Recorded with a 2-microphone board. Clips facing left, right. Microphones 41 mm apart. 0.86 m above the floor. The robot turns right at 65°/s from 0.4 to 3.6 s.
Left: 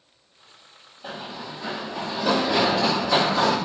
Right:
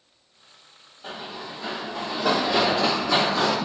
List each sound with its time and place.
1.0 s running footsteps: centre (ahead or behind), 1.5 m; by 3.5 s 20° left (ahead or behind), 2 m